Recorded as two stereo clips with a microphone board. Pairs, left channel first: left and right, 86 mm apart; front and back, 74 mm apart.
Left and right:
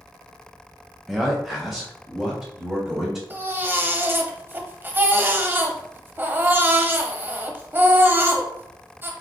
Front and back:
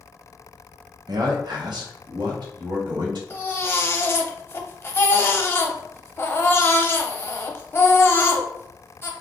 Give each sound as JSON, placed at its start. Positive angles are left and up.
{"t": 1.1, "sound": "a man speaking", "azimuth_deg": 180, "distance_m": 0.6}
{"t": 3.3, "sound": "a baby crying", "azimuth_deg": -40, "distance_m": 0.7}